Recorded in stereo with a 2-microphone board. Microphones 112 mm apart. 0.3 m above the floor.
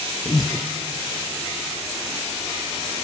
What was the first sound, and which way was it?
Breathing, 40° left (ahead or behind).